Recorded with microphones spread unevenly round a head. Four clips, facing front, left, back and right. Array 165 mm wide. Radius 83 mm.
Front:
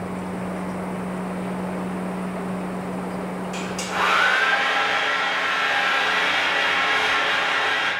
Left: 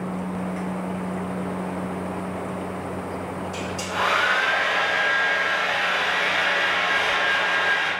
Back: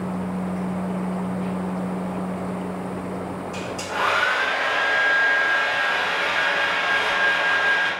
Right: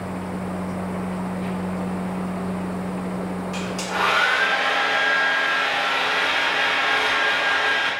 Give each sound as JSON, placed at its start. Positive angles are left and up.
{"t": 3.5, "sound": "a hair dryer", "azimuth_deg": -60, "distance_m": 1.1}